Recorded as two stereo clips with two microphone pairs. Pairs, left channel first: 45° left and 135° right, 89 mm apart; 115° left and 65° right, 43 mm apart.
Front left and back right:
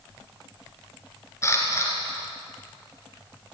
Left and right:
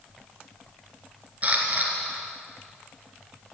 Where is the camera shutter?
10° right, 3 m.